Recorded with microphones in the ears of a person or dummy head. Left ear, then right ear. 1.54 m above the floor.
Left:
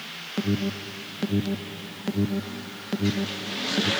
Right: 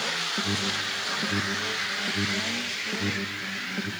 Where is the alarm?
35° left (ahead or behind), 0.8 m.